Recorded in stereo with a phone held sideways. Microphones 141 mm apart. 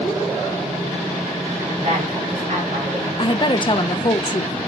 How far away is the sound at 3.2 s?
About 0.6 m.